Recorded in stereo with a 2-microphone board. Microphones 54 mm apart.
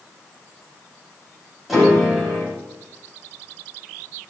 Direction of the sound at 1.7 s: 5° right (ahead or behind).